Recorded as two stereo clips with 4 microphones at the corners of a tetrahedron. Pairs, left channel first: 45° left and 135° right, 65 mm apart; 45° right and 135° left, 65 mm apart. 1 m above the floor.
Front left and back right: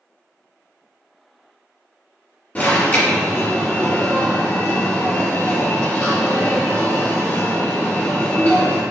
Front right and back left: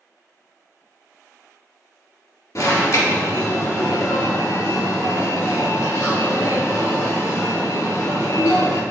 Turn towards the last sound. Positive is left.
turn(degrees=-20)